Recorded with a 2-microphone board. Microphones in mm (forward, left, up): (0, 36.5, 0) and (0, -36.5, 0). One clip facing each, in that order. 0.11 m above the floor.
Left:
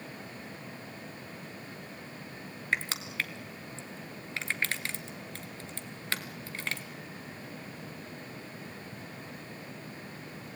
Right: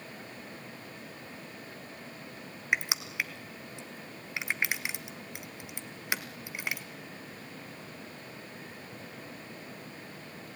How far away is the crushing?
About 1.5 m.